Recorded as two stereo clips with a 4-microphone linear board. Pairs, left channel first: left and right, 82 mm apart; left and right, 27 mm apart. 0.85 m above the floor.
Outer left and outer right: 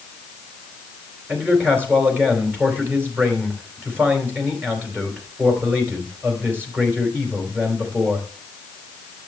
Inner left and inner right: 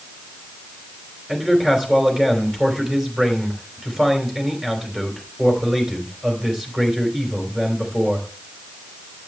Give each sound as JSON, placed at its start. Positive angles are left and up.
{"t": 1.3, "sound": "a man speaking", "side_deg": -25, "distance_m": 4.0}